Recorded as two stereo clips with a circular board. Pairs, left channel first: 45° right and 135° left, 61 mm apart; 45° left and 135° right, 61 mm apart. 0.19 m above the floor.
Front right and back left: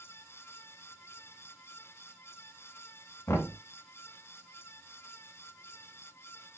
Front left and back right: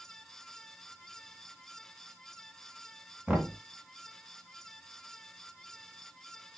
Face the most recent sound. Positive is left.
turn(degrees=-65)